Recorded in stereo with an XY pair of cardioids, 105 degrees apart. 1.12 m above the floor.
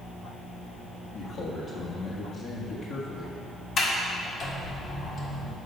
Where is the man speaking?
55° left, 1.5 m.